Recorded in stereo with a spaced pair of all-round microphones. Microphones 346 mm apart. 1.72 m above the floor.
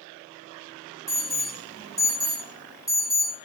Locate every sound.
1.1 s an alarm: 10° left (ahead or behind), 0.9 m